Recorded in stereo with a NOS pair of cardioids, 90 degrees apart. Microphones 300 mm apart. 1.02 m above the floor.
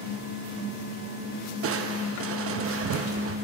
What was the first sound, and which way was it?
Crushing, 50° right.